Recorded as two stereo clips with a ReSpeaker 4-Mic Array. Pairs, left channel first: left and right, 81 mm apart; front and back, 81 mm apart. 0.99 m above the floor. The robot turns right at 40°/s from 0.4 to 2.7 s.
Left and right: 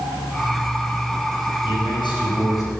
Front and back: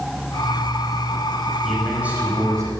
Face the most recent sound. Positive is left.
turn(degrees=135)